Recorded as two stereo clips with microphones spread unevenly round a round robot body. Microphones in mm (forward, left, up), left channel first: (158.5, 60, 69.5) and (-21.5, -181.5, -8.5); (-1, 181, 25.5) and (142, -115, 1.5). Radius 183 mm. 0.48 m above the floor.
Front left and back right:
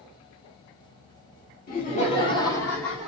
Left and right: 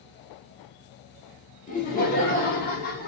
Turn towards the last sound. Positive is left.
turn(degrees=165)